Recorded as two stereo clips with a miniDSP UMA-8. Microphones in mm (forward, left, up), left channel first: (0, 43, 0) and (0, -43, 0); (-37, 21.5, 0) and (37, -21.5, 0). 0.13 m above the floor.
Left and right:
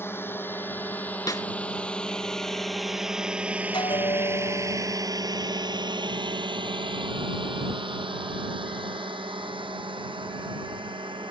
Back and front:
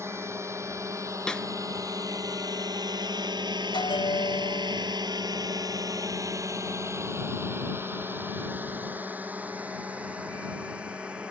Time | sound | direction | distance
0.0 | a drone | 30° left | ?
1.3 | a snare drum | 70° left | ?
3.7 | a bell | 125° left | ?